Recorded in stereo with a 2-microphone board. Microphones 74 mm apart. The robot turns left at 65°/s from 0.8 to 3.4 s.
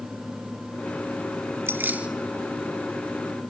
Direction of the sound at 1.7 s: 30° right (ahead or behind).